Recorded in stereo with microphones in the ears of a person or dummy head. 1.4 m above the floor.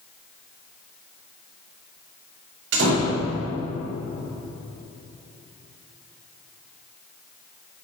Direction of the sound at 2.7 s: 70° right (ahead or behind).